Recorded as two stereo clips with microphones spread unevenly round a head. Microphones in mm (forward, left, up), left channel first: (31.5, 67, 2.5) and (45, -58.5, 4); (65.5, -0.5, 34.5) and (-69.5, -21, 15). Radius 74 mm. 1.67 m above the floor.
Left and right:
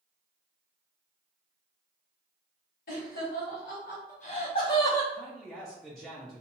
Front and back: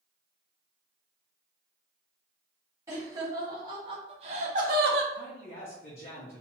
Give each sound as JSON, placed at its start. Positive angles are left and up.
{"t": 2.9, "sound": "laughter", "azimuth_deg": 115, "distance_m": 1.4}
{"t": 5.1, "sound": "a man speaking", "azimuth_deg": 10, "distance_m": 0.5}